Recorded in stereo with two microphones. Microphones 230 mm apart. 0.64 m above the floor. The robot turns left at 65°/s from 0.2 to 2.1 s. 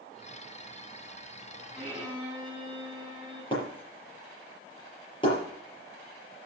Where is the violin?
5° left (ahead or behind), 6 m; by 3.4 s 20° right (ahead or behind), 6 m.